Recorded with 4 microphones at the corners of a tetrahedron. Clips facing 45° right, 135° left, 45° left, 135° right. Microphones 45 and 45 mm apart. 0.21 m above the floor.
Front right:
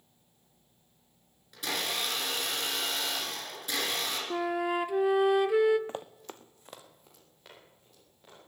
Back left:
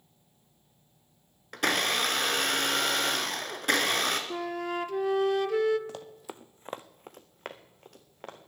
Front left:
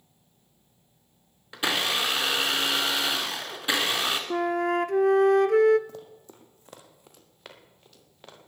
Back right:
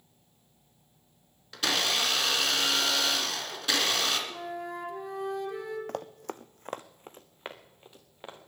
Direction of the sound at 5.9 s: 105° right.